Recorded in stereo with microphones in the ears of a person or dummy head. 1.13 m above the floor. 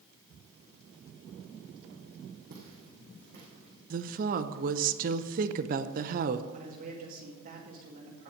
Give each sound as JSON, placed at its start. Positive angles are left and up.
{"t": 2.5, "sound": "footsteps", "side_deg": -50, "distance_m": 3.0}
{"t": 3.9, "sound": "a woman speaking", "side_deg": -45, "distance_m": 0.6}
{"t": 6.5, "sound": "a man speaking", "side_deg": -45, "distance_m": 2.0}